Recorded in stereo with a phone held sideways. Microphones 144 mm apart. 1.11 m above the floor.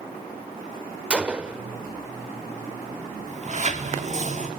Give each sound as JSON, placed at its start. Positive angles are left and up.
{"t": 1.1, "sound": "a gunshot", "side_deg": -10, "distance_m": 1.0}
{"t": 3.3, "sound": "a sliding door", "side_deg": -50, "distance_m": 2.0}